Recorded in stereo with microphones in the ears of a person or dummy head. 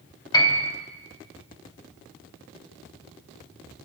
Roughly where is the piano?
Left.